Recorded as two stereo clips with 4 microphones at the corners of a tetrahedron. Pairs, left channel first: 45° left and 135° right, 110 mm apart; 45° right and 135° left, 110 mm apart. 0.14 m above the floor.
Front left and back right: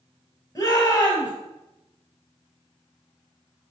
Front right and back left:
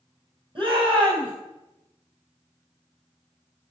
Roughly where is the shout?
Left.